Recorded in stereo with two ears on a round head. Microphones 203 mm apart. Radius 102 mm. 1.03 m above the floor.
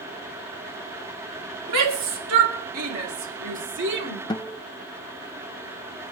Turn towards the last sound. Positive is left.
turn(degrees=20)  # may be behind; listen again after turning